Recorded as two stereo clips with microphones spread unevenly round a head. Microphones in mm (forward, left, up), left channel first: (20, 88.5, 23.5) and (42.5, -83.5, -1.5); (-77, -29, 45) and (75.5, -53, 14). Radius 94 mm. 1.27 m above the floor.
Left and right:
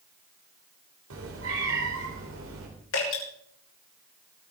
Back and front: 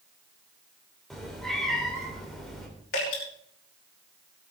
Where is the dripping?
130° left, 5 m.